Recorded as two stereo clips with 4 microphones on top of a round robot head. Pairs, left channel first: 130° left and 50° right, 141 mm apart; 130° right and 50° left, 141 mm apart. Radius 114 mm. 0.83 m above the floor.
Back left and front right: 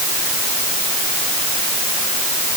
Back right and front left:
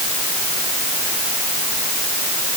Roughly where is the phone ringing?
No phone ringing in this recording.